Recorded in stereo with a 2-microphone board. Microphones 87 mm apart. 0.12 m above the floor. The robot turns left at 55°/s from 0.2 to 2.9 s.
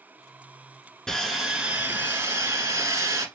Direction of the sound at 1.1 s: 10° left.